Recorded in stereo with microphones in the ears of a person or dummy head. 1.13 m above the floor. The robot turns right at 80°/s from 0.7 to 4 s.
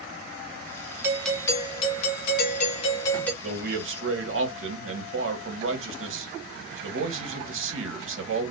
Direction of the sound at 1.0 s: 15° right.